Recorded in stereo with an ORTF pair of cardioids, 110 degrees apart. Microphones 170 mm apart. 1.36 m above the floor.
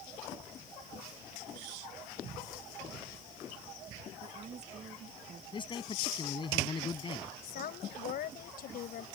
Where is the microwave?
I don't hear a microwave.